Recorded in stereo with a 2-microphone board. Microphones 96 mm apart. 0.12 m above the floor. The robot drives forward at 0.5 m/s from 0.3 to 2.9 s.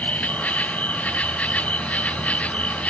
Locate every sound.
0.0 s an insect: 15° left (ahead or behind)